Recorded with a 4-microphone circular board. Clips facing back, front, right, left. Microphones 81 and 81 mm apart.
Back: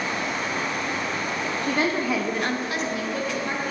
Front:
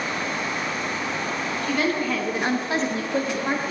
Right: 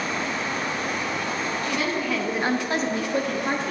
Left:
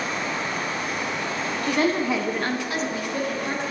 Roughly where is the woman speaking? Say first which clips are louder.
Even, left 7 dB; behind left.